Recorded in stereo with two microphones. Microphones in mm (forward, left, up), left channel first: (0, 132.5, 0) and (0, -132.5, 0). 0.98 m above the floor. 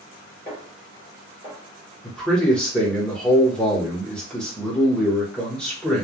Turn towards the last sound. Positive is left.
turn(degrees=5)  # may be behind; listen again after turning